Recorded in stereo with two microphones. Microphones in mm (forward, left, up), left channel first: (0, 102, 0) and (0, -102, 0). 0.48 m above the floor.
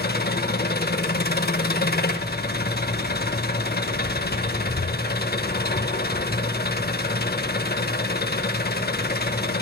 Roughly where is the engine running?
Left.